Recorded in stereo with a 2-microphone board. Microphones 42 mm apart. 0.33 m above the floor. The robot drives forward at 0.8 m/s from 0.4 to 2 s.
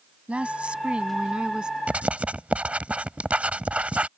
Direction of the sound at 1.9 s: 35° right (ahead or behind).